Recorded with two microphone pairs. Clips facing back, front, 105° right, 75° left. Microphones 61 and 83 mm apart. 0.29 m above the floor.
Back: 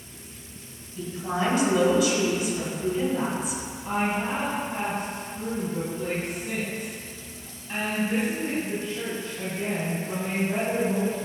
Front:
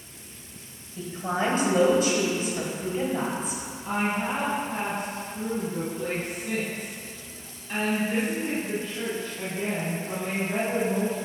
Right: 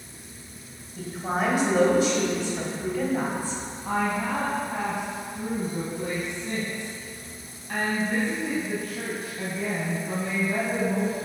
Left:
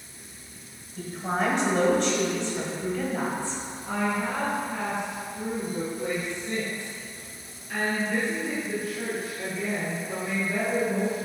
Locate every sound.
1.0 s a woman speaking: 30° right, 1.8 m
3.9 s a woman speaking: 95° right, 1.7 m